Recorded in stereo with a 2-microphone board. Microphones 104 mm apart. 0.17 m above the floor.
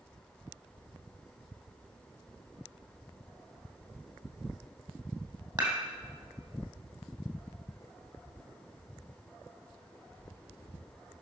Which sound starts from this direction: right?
Dishes clattering, at 5.6 s.